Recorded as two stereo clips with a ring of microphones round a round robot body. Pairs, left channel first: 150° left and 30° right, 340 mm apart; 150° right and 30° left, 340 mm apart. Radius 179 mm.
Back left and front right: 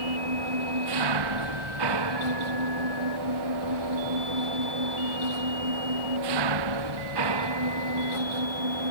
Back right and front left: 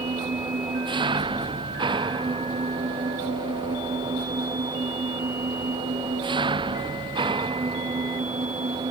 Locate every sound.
0.0 s an engine running: 45° right